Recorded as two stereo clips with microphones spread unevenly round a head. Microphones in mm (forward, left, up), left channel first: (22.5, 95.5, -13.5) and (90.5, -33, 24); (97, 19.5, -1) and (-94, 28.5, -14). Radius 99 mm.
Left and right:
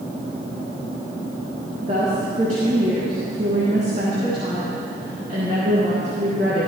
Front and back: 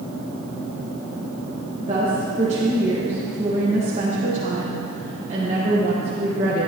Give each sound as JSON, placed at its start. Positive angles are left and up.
{"t": 1.8, "sound": "a woman speaking", "azimuth_deg": -120, "distance_m": 1.5}